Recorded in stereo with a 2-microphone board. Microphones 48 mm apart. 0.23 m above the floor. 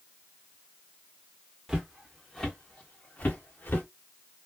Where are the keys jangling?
No keys jangling in this recording.